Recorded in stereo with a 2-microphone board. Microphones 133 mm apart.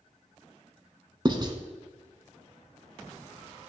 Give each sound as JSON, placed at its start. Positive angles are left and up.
{"t": 1.2, "sound": "writing", "side_deg": -35, "distance_m": 0.9}